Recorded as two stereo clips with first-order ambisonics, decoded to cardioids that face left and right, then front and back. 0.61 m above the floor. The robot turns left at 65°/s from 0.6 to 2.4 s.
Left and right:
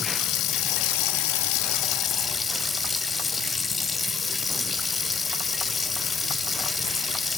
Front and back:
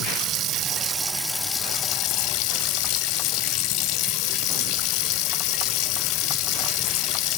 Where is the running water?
135° left, 0.9 m; by 7.4 s 15° left, 0.9 m.